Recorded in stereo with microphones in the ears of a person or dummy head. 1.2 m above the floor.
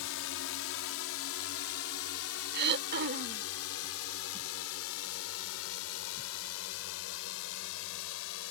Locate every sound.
0.0 s a drone: 65° left (ahead or behind); by 8.5 s 70° left (ahead or behind)
2.5 s throat clearing: 60° right (ahead or behind)